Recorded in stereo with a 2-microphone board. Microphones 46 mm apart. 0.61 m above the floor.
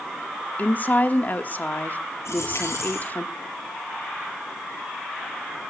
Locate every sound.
0.6 s a woman speaking: 40° left (ahead or behind), 1.2 m
2.2 s a dropped coin: 80° left, 8.5 m